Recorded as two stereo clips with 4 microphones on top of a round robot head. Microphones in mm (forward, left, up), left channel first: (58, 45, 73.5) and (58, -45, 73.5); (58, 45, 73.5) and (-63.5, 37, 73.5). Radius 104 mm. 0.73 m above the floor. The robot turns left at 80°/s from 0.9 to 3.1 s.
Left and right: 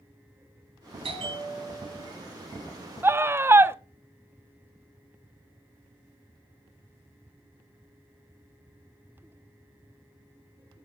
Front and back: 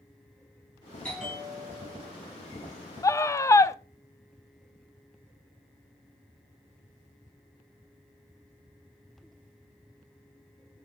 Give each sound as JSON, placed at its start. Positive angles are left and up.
{"t": 1.0, "sound": "a bell", "azimuth_deg": -80, "distance_m": 5.5}
{"t": 3.0, "sound": "a scream", "azimuth_deg": -40, "distance_m": 0.8}